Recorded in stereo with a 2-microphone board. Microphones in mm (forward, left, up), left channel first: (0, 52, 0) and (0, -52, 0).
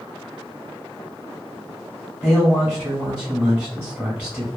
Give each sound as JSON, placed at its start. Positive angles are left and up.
{"t": 2.2, "sound": "a man speaking", "side_deg": -15, "distance_m": 0.9}